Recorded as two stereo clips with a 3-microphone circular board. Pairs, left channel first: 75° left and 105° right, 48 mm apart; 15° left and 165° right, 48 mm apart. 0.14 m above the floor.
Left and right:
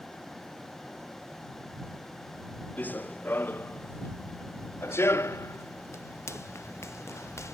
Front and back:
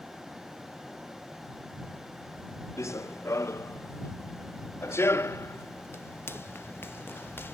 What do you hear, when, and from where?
2.8 s running footsteps: 20° left; by 7.5 s 60° left